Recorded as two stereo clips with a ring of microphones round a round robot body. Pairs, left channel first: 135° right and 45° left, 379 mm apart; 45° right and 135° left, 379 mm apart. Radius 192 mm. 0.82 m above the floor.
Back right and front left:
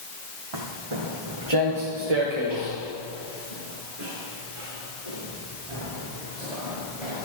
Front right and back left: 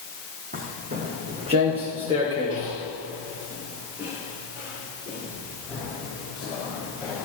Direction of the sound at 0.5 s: 65° left.